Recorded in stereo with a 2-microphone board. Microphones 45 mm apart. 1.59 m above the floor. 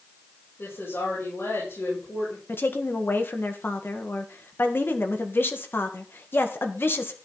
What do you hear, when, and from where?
0.6 s a woman speaking: 75° left (ahead or behind), 8 m
2.5 s a woman speaking: 55° left (ahead or behind), 1.7 m